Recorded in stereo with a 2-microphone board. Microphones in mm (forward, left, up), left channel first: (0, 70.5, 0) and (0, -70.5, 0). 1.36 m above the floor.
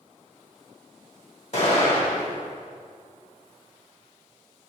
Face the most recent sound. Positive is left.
turn(degrees=55)  # may be behind; listen again after turning